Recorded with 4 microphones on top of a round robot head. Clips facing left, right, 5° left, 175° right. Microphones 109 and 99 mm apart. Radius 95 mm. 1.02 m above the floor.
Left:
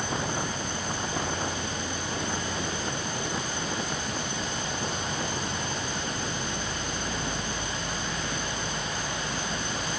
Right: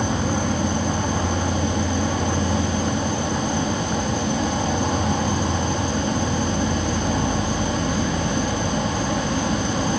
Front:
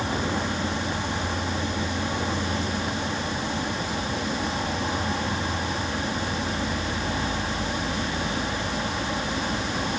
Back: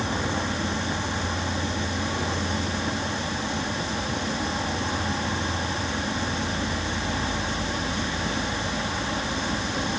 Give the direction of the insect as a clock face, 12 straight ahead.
3 o'clock.